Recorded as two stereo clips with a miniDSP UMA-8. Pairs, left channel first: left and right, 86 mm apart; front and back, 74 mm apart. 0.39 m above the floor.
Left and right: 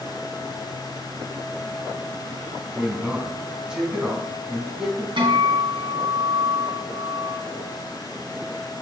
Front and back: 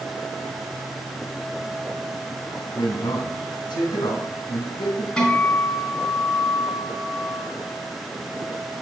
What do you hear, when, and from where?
2.7 s a man speaking: 10° right, 3 m
5.2 s a guitar: 75° right, 3.5 m